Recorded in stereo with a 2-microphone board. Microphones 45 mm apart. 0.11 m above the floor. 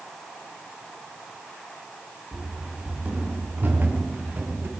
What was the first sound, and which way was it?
Running footsteps, 30° right (ahead or behind).